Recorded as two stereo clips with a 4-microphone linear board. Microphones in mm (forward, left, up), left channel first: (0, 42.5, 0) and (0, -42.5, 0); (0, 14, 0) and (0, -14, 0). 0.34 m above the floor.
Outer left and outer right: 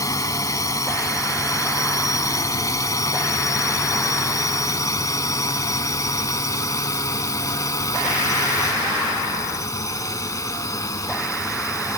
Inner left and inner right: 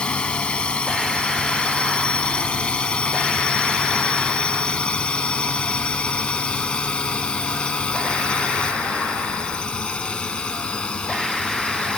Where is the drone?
40° left (ahead or behind).